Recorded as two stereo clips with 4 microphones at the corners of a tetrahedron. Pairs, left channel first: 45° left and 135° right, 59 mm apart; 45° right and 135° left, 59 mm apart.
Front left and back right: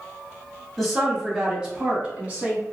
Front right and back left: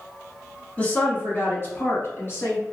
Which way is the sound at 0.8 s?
35° right.